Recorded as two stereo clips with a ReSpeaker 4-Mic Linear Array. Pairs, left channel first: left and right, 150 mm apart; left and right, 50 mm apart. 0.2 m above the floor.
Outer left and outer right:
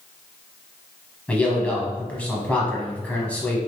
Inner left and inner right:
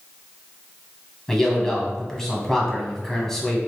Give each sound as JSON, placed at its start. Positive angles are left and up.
{"t": 1.3, "sound": "a man speaking", "side_deg": 10, "distance_m": 1.0}